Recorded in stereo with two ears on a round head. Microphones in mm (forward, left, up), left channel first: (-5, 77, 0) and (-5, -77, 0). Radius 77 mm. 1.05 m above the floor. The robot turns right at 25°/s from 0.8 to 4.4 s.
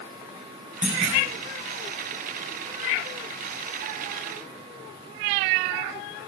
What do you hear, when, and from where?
0.8 s a clunk: 5° right (ahead or behind), 7.5 m; by 1.2 s 5° left (ahead or behind), 7.5 m